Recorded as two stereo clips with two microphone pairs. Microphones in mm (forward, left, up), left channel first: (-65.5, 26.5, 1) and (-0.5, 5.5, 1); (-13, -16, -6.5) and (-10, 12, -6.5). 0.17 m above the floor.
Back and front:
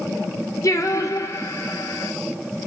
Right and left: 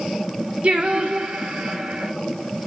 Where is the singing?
125° left, 1.8 m.